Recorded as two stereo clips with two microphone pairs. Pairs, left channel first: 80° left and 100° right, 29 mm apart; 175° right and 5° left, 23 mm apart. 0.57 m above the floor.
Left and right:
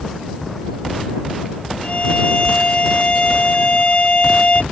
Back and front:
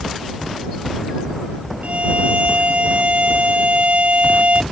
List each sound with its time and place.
1.8 s a violin: 30° left